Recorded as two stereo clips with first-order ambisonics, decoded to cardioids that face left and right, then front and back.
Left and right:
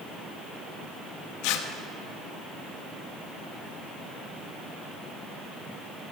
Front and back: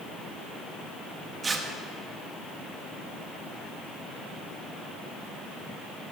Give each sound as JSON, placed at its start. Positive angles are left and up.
{"t": 1.4, "sound": "tearing paper", "azimuth_deg": 105, "distance_m": 0.8}